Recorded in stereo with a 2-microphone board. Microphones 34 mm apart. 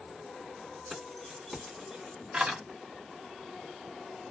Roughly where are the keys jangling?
Centre.